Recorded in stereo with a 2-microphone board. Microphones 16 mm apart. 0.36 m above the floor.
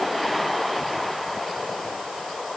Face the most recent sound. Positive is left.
No sound to turn to.